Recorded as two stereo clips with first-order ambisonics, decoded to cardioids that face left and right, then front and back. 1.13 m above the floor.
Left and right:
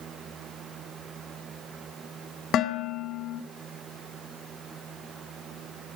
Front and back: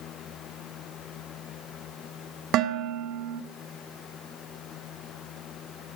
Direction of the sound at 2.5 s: 140° left.